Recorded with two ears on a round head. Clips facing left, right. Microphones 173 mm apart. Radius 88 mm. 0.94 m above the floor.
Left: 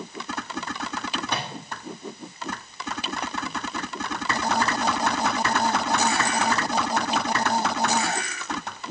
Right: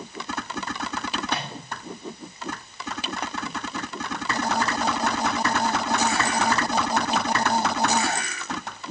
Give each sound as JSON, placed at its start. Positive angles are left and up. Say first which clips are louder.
{"t": 1.3, "sound": "a microwave", "louder": "right 1 dB", "side_deg": 85, "distance_m": 1.8}